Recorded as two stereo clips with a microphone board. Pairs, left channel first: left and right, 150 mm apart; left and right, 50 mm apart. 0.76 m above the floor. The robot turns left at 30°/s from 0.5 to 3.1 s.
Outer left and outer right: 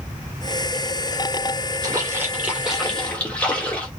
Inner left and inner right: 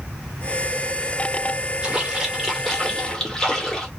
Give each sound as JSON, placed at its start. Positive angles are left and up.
{"t": 1.8, "sound": "a splash", "azimuth_deg": -150, "distance_m": 2.5}